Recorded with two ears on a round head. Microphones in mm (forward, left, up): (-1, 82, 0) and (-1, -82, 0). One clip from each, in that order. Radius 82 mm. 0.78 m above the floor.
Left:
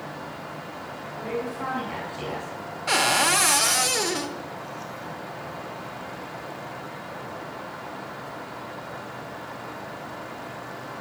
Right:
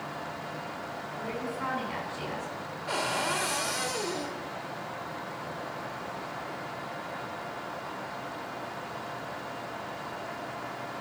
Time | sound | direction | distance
1.2 | a woman speaking | 10° right (ahead or behind) | 7.5 m
2.9 | a cupboard door | 55° left (ahead or behind) | 1.5 m